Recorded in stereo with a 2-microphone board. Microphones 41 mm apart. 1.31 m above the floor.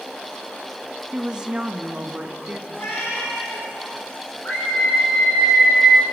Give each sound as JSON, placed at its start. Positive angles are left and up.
{"t": 1.1, "sound": "a woman speaking", "side_deg": -15, "distance_m": 1.5}
{"t": 2.7, "sound": "a cat meowing", "side_deg": 85, "distance_m": 9.5}
{"t": 4.5, "sound": "a scream", "side_deg": 50, "distance_m": 9.5}